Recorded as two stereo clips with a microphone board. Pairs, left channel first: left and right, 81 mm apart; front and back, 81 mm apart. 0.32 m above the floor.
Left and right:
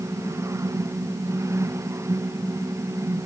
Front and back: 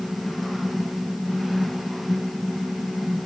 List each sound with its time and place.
Only background noise.